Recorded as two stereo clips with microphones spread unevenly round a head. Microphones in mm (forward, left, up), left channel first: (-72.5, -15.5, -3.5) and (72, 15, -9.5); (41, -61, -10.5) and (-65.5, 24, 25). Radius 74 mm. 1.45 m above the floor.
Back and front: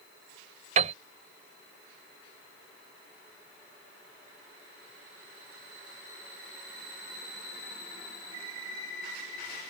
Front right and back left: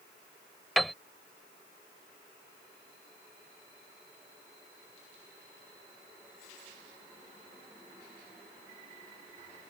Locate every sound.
0.8 s a piano: 55° left